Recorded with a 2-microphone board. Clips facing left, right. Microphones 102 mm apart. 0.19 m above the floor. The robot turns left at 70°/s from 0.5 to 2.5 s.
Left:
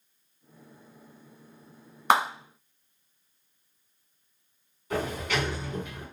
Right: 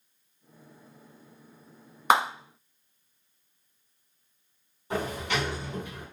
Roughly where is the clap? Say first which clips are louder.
Even; centre.